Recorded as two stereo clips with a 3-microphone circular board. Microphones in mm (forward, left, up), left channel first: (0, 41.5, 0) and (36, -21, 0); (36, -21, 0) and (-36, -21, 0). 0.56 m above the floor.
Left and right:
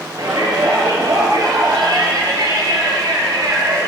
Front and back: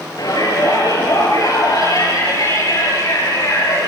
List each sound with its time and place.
0.2 s a shout: 30° right, 10 m; by 3.9 s 40° right, 11 m